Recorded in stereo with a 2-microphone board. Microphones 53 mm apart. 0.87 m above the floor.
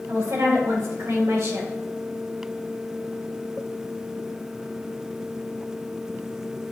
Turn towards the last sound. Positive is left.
turn(degrees=-70)  # may be behind; listen again after turning